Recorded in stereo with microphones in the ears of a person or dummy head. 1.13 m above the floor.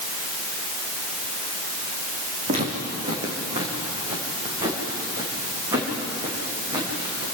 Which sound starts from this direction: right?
Footsteps, at 2.5 s.